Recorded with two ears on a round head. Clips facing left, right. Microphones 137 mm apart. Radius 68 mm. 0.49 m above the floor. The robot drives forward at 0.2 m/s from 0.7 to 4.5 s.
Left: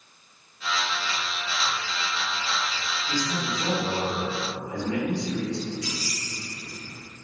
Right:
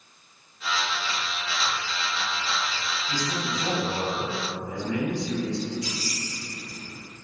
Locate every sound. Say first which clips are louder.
3.1 s a man speaking: left 2 dB; 20° left (ahead or behind), 1.1 m
5.8 s keys jangling: right 1 dB; 60° left (ahead or behind), 1.8 m